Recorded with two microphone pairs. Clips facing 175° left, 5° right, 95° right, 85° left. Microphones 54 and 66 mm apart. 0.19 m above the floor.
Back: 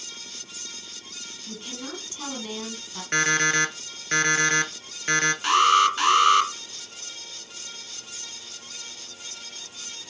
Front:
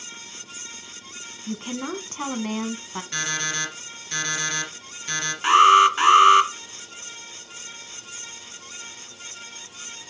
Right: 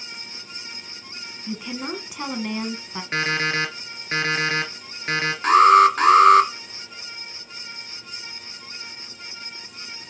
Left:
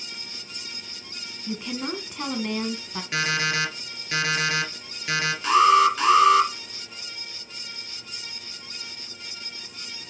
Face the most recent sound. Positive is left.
turn(degrees=-70)